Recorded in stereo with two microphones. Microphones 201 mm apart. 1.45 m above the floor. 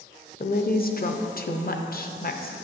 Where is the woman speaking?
50° left (ahead or behind), 0.6 m.